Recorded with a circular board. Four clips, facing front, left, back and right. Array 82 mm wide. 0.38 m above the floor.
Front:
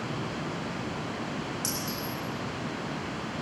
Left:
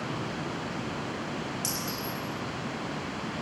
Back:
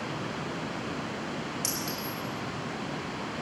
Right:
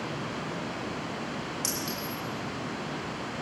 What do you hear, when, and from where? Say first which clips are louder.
1.6 s a clink: even, front 1 dB; 135° right, 7.5 m